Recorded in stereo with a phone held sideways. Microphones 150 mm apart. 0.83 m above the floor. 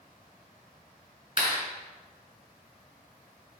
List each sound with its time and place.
1.4 s a clap: 40° right (ahead or behind), 3 m